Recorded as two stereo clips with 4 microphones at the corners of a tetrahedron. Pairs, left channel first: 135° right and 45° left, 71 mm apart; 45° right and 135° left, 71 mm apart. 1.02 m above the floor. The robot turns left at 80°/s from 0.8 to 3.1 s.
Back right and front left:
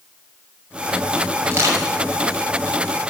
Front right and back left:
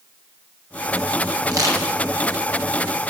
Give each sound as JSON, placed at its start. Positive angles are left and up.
{"t": 1.5, "sound": "crushing", "azimuth_deg": 105, "distance_m": 6.5}